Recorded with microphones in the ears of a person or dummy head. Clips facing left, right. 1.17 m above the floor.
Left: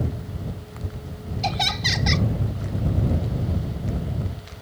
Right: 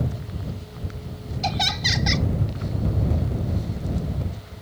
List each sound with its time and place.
1.4 s laughter: centre (ahead or behind)